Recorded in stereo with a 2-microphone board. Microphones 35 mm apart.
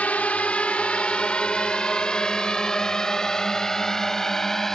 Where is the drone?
50° left (ahead or behind); by 4.8 s 15° left (ahead or behind).